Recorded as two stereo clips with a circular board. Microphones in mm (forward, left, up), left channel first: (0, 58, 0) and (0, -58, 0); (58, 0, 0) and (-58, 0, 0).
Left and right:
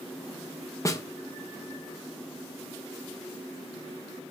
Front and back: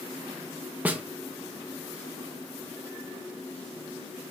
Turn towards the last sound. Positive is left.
turn(degrees=115)